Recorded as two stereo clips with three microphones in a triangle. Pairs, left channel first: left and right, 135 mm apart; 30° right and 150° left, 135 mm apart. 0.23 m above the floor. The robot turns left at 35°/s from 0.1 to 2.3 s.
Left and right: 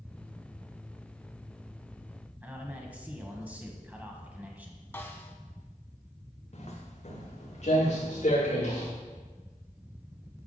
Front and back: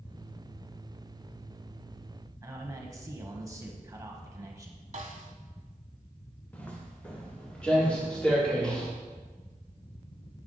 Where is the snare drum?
160° left, 0.8 m.